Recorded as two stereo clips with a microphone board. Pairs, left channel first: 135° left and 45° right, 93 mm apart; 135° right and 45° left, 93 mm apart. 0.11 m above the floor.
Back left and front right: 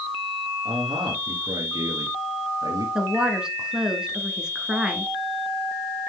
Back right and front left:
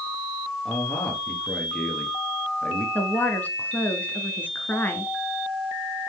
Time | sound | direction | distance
0.7 | a man speaking | 60° right | 2.0 m
3.0 | a woman speaking | 110° right | 1.1 m